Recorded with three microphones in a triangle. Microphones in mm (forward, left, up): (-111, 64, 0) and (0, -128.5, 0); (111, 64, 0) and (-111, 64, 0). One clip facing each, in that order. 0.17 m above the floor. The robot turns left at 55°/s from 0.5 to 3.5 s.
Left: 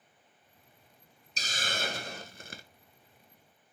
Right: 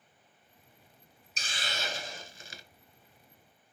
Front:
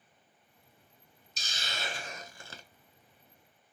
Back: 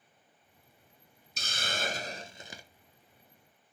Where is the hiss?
170° left, 0.7 m; by 2.6 s 100° left, 0.7 m.